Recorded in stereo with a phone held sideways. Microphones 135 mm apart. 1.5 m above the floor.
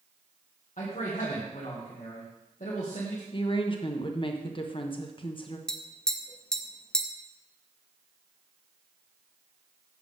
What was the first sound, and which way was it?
A man speaking, 65° left (ahead or behind).